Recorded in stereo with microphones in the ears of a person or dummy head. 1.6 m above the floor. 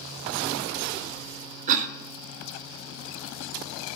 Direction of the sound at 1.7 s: 45° right (ahead or behind).